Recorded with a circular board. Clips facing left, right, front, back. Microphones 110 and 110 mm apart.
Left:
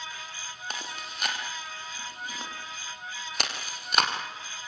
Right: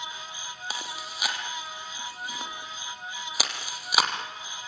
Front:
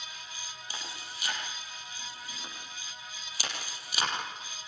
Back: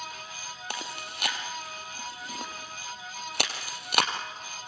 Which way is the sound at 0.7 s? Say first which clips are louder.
Right 1 dB, back 7 dB; 175° right.